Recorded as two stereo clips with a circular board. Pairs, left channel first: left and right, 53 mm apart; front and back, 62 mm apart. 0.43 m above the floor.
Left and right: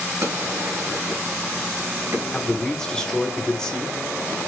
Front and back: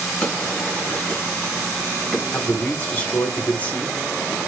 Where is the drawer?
75° right, 1.5 m.